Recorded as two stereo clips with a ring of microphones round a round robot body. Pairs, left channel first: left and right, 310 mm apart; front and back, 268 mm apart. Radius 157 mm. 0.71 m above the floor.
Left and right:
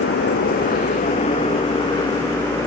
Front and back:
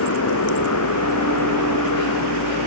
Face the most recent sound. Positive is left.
turn(degrees=10)